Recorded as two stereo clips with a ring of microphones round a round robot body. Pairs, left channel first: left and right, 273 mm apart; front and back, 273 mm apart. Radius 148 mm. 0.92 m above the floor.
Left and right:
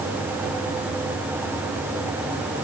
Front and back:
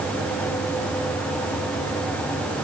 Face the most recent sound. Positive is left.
No sound to turn to.